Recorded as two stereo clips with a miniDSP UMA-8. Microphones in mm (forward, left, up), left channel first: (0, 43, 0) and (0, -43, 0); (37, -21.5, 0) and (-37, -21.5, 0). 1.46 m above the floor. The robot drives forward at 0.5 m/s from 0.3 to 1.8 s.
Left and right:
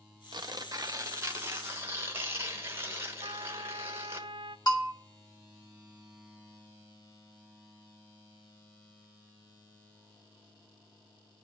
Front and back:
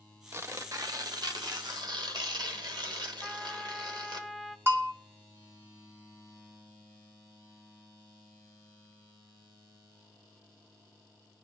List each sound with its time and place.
0.3 s tearing paper: 120° right, 0.7 m; by 4.2 s 155° right, 1.2 m
3.2 s a trumpet: 95° right, 0.5 m
4.7 s a bell: 125° left, 1.7 m